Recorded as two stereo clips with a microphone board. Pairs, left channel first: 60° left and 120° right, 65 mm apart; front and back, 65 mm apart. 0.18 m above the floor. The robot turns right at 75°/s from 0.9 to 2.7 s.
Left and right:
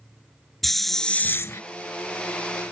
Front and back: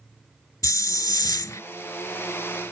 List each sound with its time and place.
0.6 s a hiss: 25° right; by 1.6 s 30° left